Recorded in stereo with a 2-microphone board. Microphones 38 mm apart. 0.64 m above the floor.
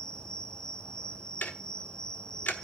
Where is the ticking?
60° left (ahead or behind), 1.2 m.